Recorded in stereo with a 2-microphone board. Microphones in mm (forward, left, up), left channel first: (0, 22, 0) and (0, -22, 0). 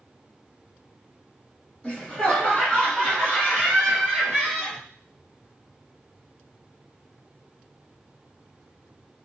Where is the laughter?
25° left (ahead or behind), 1.3 m; by 4.8 s 5° left (ahead or behind), 1.5 m.